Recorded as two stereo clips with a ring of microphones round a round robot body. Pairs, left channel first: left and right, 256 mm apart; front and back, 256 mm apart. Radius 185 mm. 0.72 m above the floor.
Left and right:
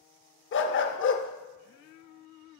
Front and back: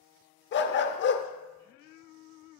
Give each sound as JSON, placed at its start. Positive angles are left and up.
{"t": 0.5, "sound": "a dog barking", "azimuth_deg": 45, "distance_m": 0.7}